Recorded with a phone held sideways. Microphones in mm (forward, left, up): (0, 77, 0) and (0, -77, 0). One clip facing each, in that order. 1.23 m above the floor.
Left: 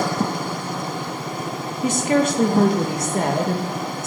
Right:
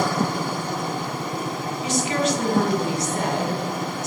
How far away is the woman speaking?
About 1.6 m.